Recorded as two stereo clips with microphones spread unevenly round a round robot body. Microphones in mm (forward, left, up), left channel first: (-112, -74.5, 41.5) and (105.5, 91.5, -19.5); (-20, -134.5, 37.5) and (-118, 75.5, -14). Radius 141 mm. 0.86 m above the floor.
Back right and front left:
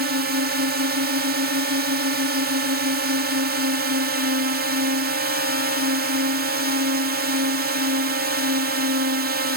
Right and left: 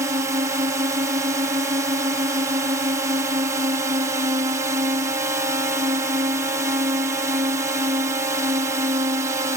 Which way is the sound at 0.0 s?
55° left.